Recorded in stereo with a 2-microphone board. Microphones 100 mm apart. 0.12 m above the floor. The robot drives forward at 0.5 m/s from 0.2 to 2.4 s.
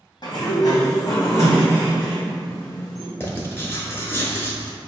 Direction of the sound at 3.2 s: 25° left (ahead or behind).